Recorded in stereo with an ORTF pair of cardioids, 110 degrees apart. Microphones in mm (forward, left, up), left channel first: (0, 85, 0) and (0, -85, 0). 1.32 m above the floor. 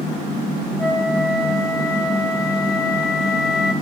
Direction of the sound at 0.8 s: 5° right.